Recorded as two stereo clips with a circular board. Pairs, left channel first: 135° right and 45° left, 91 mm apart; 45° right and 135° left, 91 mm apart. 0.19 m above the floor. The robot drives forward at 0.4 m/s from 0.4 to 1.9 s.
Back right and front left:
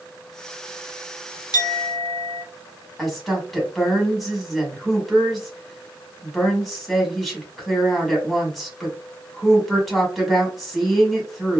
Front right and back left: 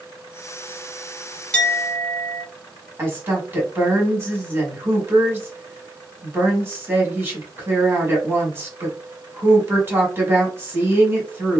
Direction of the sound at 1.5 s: 110° right.